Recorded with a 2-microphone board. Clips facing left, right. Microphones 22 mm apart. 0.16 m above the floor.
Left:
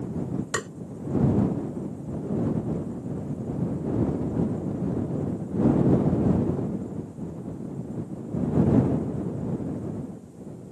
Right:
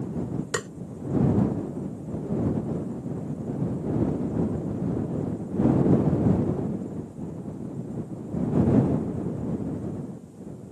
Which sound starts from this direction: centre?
Tapping, at 0.5 s.